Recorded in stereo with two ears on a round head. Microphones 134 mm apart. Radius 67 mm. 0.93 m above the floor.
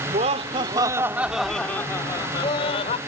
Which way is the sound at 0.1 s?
45° right (ahead or behind).